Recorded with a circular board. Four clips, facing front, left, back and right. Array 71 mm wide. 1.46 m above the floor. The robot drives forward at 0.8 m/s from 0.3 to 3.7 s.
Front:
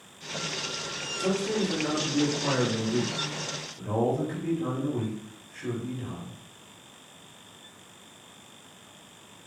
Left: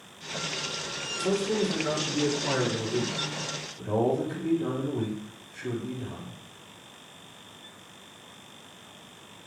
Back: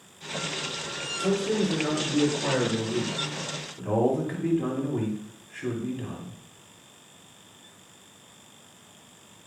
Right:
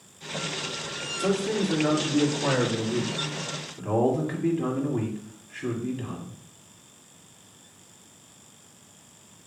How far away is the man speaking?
About 3 m.